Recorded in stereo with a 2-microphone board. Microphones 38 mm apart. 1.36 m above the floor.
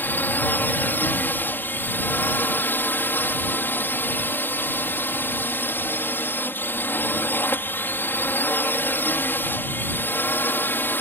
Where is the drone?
55° left (ahead or behind); by 11.0 s 65° left (ahead or behind).